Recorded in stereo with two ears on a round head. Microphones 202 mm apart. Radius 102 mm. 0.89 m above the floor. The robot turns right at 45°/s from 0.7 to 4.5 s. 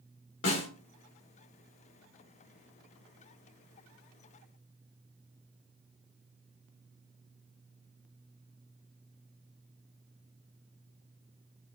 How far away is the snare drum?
About 1.9 m.